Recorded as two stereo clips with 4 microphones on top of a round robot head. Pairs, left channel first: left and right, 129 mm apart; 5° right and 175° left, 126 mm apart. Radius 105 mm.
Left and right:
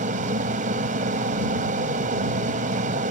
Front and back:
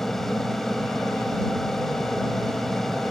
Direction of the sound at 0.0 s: 90° right.